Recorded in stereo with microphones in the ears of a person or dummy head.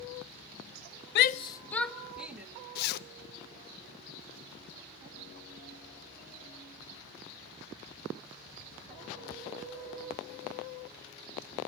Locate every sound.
1.1 s a shout: 65° left (ahead or behind), 0.5 m; by 2.5 s 10° right (ahead or behind), 1.7 m
2.8 s a zipper: 55° left (ahead or behind), 0.6 m